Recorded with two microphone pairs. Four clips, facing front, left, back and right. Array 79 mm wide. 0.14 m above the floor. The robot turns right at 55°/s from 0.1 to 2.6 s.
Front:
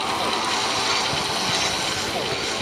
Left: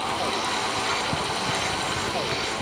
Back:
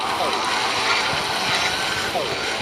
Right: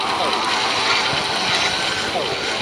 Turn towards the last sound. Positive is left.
No sound to turn to.